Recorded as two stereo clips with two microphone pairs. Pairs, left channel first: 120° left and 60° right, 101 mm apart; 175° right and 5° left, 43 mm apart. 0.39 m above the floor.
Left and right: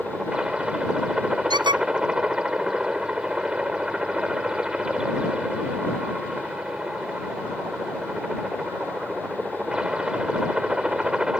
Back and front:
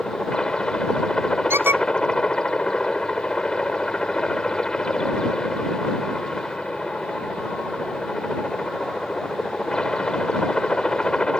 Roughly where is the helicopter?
Behind right.